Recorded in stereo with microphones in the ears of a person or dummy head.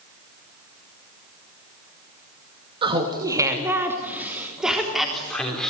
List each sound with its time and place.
2.8 s laughter: 25° right (ahead or behind), 2 m; by 5.7 s 5° left (ahead or behind), 4 m